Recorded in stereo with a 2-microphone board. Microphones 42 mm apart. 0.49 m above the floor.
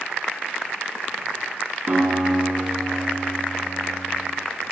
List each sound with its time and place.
1.9 s a guitar: 45° right (ahead or behind), 3.5 m